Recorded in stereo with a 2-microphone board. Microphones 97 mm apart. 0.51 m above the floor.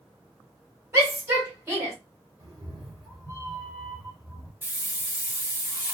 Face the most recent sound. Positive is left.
turn(degrees=-20)  # may be behind; listen again after turning